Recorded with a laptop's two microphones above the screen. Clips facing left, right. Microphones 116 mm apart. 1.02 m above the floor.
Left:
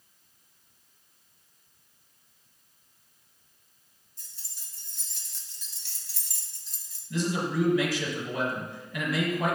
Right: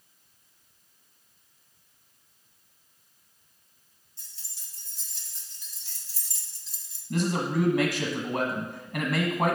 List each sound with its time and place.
4.2 s keys jangling: 45° left (ahead or behind), 1.6 m
7.1 s a man speaking: 50° right (ahead or behind), 1.5 m